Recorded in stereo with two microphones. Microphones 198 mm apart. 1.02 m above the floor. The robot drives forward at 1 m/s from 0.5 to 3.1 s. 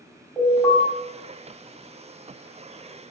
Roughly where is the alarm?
Centre.